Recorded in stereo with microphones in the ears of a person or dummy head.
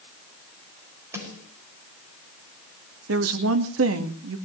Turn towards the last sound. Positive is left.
turn(degrees=-85)